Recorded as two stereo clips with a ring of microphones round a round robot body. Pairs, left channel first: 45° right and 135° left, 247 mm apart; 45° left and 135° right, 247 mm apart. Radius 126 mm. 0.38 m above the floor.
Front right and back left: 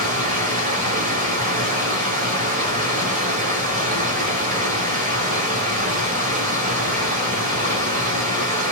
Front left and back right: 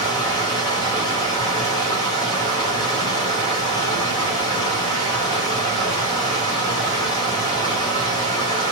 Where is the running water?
105° left, 1.2 m.